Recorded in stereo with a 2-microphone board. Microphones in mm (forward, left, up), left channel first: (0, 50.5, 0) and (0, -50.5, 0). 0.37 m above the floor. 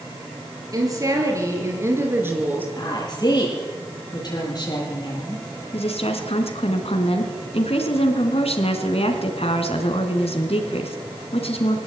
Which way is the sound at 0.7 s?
35° right (ahead or behind).